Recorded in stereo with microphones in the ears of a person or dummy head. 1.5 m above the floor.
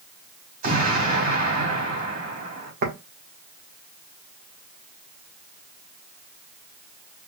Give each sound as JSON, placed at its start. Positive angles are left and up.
{"t": 0.6, "sound": "an explosion", "side_deg": -45, "distance_m": 2.0}
{"t": 2.8, "sound": "tapping", "side_deg": -50, "distance_m": 1.5}